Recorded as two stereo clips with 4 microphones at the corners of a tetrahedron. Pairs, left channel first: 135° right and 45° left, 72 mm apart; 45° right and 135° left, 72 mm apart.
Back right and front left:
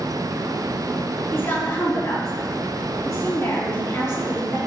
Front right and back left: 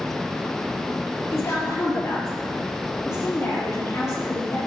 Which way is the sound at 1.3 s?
85° right.